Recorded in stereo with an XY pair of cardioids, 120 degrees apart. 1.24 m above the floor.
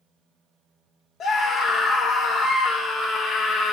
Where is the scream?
60° left, 0.9 m.